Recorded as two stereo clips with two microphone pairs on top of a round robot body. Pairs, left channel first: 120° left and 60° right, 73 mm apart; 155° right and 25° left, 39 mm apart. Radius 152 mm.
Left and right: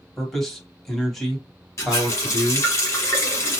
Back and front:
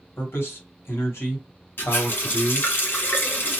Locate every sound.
0.2 s a man speaking: 155° right, 1.3 m
1.8 s a running tap: 175° left, 1.0 m